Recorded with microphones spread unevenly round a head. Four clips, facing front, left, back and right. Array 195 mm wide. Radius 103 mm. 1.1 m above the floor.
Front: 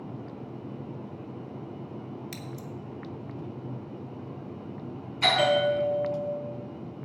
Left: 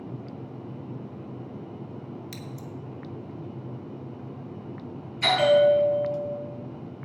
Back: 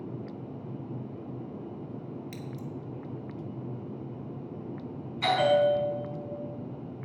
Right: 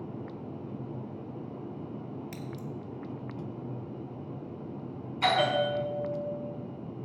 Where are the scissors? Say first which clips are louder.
Even, even; 5° left, 1.9 m.